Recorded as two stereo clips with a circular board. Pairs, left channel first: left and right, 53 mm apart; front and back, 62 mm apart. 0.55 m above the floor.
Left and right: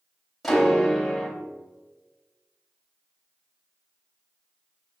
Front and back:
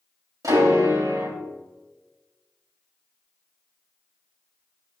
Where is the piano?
175° left, 2.5 m.